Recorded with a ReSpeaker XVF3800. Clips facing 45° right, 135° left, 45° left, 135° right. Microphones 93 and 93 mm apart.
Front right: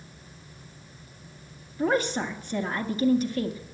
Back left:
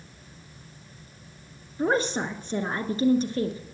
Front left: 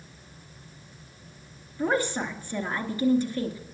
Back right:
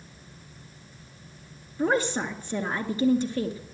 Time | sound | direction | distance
1.8 | a woman speaking | 170° left | 1.6 m